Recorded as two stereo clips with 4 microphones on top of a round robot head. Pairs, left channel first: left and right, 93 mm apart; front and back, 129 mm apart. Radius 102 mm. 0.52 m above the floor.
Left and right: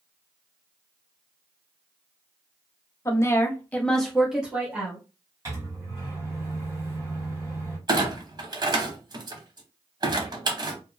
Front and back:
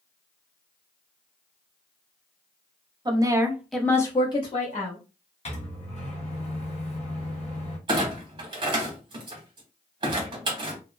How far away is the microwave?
About 1.4 m.